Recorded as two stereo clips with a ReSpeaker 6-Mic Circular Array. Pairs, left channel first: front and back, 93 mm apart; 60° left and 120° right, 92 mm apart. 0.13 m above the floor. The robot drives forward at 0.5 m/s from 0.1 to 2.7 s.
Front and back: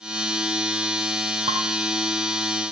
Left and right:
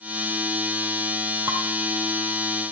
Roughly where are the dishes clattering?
Behind.